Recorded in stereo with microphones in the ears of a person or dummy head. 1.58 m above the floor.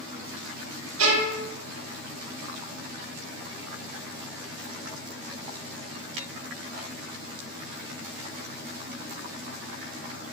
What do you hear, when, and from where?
1.0 s a violin: 85° right, 0.9 m